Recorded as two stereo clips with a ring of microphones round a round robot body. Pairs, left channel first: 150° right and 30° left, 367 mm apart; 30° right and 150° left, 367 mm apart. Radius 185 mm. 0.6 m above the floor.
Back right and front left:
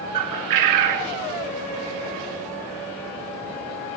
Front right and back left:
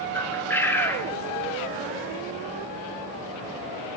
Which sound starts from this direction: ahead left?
A bird, at 0.1 s.